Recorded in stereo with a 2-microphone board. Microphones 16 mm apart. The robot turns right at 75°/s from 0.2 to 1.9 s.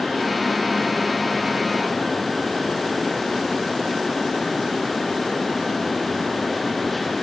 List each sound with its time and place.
Only background noise.